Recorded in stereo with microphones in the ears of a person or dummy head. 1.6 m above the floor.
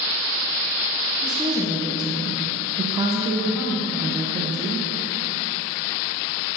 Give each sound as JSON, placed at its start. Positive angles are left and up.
{"t": 1.2, "sound": "a woman speaking", "side_deg": -25, "distance_m": 1.1}